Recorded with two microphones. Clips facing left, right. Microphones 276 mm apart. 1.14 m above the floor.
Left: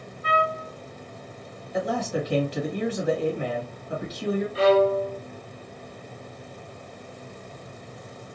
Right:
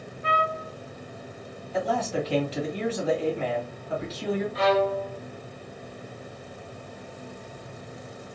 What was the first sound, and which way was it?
A trumpet, 65° right (ahead or behind).